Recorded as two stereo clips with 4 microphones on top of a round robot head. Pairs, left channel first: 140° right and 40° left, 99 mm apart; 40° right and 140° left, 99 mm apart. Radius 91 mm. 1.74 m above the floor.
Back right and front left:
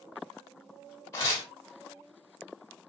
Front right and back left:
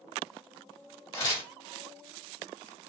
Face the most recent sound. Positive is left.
turn(degrees=-80)